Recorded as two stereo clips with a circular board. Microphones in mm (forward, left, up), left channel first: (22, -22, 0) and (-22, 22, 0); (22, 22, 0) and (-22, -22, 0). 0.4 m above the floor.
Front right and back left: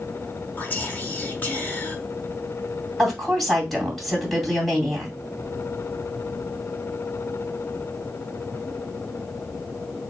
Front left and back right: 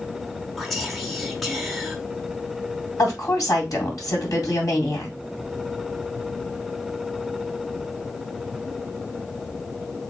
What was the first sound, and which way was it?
Whispering, 45° right.